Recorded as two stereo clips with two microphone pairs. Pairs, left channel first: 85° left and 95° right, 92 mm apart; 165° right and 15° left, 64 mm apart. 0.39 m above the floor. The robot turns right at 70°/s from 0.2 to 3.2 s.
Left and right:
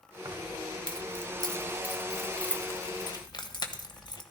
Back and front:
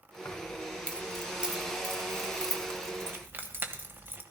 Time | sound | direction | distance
0.2 | keys jangling | 135° right | 1.3 m